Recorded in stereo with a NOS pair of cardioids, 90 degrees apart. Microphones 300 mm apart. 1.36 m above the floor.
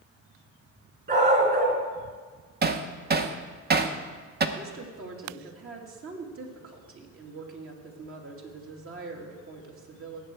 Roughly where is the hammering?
Ahead right.